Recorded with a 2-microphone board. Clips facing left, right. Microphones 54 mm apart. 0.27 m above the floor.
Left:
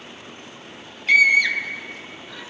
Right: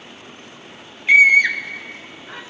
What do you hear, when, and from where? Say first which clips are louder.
1.1 s a scream: right 4 dB; 20° right (ahead or behind), 1.0 m; by 2.4 s 40° right (ahead or behind), 2.5 m